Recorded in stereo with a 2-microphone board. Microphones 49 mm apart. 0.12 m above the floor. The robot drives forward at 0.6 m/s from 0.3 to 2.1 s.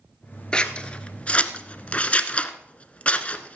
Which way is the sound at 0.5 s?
20° left (ahead or behind).